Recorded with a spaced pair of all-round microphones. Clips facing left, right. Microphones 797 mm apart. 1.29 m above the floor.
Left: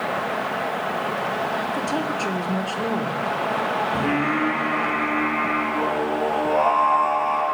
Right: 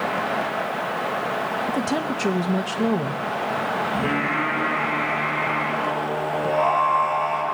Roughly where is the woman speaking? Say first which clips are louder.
Right 5 dB; right.